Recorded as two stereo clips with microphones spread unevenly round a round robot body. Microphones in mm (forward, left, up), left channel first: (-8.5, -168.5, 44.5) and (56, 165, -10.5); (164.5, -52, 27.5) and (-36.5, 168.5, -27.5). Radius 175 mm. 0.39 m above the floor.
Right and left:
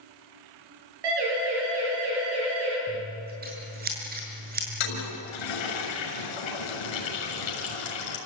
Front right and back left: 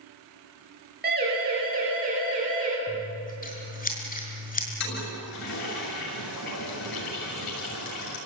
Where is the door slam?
No door slam in this recording.